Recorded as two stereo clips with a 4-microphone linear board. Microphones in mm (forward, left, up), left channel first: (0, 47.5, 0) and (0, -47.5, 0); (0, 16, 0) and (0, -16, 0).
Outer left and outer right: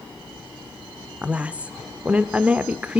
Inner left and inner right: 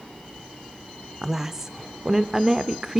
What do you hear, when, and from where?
1.2 s a woman speaking: 15° right (ahead or behind), 0.8 m